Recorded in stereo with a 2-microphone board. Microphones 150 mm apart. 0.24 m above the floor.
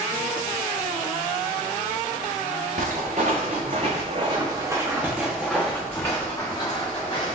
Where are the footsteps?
70° right (ahead or behind), 1.6 m; by 7.3 s 35° left (ahead or behind), 2.0 m.